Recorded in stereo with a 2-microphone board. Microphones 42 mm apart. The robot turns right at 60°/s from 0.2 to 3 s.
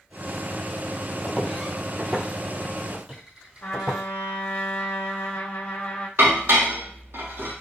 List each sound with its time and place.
1.2 s footsteps: 10° left (ahead or behind), 1.6 m; by 4.0 s 15° right (ahead or behind), 2.5 m
3.6 s a trumpet: 45° left (ahead or behind), 1.3 m
6.2 s dishes clattering: 65° right (ahead or behind), 1.2 m